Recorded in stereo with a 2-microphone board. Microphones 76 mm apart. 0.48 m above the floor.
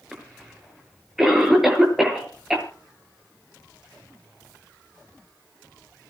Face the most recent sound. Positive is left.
turn(degrees=-5)  # may be behind; listen again after turning